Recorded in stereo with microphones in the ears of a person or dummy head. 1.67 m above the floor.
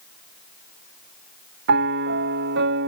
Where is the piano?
65° right (ahead or behind).